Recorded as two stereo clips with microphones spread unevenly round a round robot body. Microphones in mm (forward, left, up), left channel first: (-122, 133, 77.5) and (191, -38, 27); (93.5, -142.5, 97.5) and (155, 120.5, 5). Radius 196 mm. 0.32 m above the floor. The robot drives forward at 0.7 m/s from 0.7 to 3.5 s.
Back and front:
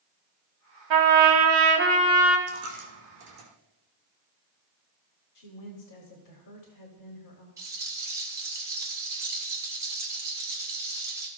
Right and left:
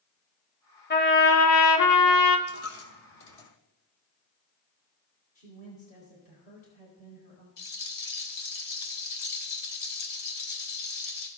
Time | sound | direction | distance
0.9 | a trumpet | 40° right | 1.1 m
2.5 | a dropped coin | 75° right | 1.6 m
5.3 | a woman speaking | straight behind | 1.7 m
7.6 | a rattle | 110° right | 1.8 m